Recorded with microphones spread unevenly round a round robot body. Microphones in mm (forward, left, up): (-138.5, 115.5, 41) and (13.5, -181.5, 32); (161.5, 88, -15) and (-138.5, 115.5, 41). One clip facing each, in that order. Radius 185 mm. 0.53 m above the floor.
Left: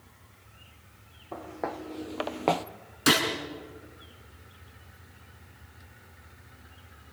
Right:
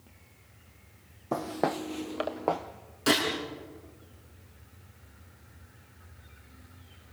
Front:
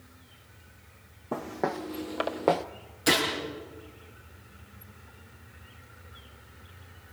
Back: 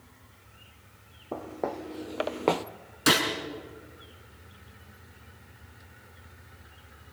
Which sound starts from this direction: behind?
A gunshot, at 3.1 s.